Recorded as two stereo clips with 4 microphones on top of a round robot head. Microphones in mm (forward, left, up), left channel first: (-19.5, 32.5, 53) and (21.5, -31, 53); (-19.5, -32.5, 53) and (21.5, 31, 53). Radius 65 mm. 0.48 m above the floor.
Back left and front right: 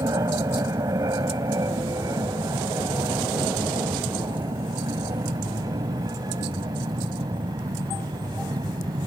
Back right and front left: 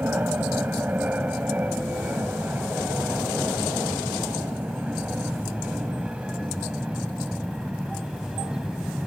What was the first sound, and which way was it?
An aircraft, 10° right.